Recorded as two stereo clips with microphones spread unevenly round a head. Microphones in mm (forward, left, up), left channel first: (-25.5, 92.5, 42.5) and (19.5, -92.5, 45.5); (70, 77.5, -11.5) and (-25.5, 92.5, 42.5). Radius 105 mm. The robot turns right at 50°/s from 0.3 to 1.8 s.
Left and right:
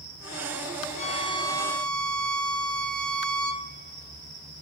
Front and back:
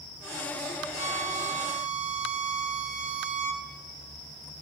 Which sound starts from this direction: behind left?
A violin, at 1.0 s.